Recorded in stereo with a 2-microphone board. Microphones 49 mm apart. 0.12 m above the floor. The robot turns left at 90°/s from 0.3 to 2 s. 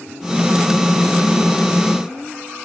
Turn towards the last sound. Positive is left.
No sound to turn to.